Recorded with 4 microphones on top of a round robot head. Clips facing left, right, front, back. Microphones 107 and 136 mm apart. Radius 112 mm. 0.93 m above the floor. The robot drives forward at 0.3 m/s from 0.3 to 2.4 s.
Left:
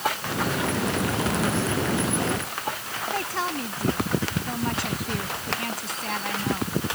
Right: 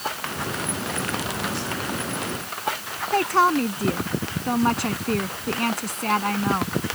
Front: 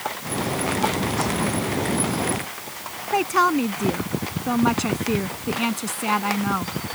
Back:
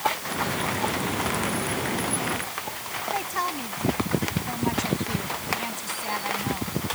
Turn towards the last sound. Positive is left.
turn(degrees=-40)